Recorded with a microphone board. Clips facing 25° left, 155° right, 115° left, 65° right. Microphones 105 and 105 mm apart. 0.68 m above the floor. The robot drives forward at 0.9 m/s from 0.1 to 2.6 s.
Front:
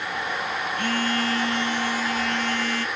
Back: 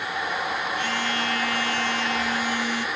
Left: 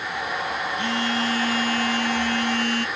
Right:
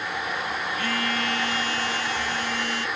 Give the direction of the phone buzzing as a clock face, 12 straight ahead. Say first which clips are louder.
Front 2 dB, left 3 dB; 10 o'clock.